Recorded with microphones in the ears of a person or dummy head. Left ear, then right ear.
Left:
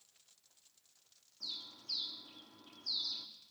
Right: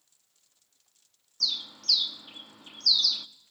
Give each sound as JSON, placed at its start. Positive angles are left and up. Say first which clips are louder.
{"t": 1.4, "sound": "a bird", "louder": "right 16 dB", "side_deg": -80, "distance_m": 0.5}